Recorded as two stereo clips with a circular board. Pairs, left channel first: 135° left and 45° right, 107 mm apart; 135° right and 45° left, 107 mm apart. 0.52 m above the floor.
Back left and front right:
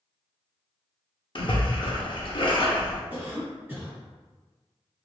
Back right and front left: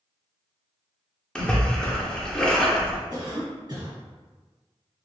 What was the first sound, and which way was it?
A splash, 145° left.